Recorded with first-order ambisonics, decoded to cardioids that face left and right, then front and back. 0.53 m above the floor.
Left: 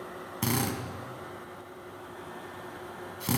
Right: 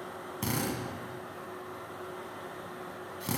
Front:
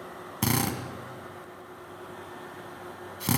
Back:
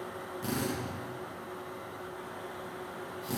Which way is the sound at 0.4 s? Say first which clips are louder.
Left 3 dB, front 6 dB; 15° left.